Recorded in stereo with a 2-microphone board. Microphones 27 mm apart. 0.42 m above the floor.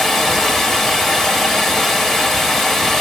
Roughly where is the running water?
Centre.